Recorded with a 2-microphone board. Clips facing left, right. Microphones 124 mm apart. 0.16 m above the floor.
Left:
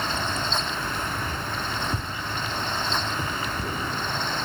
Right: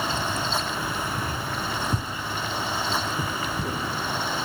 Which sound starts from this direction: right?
Keys jangling, at 0.1 s.